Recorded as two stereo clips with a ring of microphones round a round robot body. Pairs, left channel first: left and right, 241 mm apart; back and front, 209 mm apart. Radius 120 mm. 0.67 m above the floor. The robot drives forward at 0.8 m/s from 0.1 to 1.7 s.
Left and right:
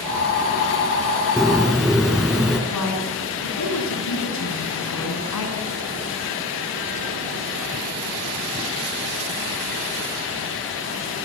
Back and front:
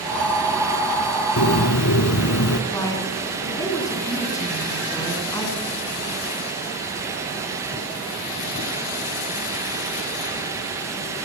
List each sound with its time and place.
1.4 s a bird: straight behind, 2 m
2.7 s a woman speaking: 105° left, 8.5 m